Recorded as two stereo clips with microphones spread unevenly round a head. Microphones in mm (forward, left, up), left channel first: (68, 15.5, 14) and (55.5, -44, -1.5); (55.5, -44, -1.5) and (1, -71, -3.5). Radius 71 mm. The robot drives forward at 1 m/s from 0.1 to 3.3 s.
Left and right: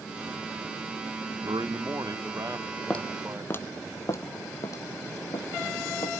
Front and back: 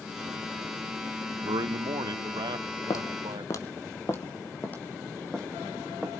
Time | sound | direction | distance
1.4 | a man speaking | 145° right | 0.9 m
2.9 | footsteps | 20° left | 2.0 m